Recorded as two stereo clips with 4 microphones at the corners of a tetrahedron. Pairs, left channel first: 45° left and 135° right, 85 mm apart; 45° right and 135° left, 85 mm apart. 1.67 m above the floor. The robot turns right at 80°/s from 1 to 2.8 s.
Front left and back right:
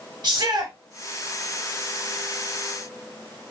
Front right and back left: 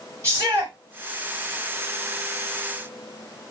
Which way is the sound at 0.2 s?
170° right.